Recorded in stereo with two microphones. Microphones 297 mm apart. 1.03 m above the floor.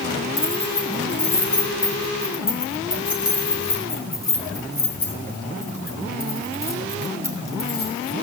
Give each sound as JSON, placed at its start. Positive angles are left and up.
{"t": 0.4, "sound": "keys jangling", "side_deg": 60, "distance_m": 3.0}